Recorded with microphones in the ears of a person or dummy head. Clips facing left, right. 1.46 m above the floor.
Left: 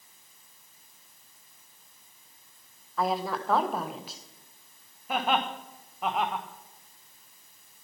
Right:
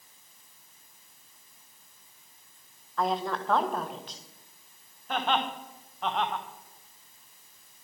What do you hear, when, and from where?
3.0 s a woman speaking: 5° left (ahead or behind), 1.2 m
5.1 s laughter: 10° left (ahead or behind), 1.5 m